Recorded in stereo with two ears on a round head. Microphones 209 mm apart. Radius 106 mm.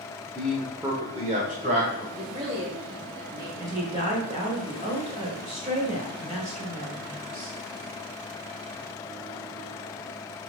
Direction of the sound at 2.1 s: 35° right (ahead or behind).